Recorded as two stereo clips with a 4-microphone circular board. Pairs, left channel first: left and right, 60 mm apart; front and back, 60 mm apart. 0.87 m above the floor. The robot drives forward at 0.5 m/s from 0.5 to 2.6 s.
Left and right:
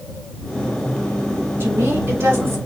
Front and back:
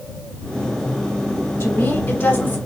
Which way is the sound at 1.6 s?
40° right.